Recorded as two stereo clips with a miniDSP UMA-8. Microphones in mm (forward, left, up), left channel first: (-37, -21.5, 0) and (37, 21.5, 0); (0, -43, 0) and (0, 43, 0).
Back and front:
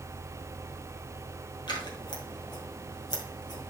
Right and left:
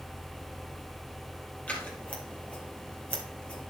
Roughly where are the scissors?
Behind.